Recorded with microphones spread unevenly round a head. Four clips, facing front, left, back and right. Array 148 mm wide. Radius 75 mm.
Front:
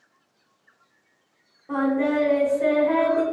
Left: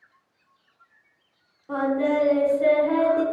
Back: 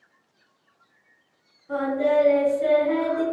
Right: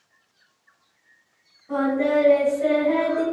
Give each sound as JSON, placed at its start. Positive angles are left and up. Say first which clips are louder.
{"t": 1.7, "sound": "singing", "louder": "right 2 dB, even", "azimuth_deg": 30, "distance_m": 1.6}